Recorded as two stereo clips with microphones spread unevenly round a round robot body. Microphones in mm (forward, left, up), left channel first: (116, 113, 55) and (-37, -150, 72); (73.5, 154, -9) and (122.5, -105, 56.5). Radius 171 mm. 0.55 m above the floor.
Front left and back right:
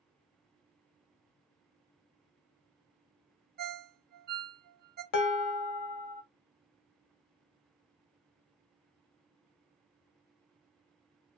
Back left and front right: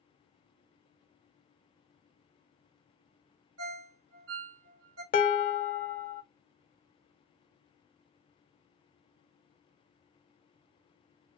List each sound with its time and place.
3.6 s a ringtone: 80° right, 0.8 m
5.1 s dishes clattering: 50° left, 0.6 m